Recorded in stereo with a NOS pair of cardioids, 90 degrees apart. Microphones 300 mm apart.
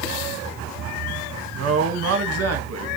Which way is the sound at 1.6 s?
55° right.